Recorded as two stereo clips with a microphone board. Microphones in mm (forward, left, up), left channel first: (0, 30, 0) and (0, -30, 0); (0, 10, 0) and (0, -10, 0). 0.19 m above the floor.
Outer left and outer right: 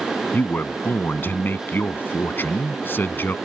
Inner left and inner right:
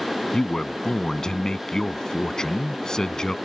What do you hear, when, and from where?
0.3 s a man speaking: 35° left (ahead or behind)